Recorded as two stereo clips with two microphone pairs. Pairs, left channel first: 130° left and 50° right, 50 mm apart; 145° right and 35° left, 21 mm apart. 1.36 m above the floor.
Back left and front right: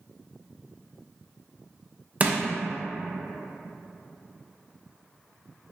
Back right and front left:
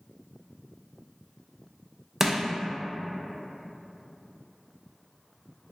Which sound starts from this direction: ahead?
Crushing, at 2.2 s.